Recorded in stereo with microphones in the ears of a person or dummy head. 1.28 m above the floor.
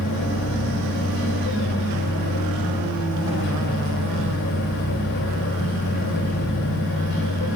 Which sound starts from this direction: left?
A machine running, at 0.0 s.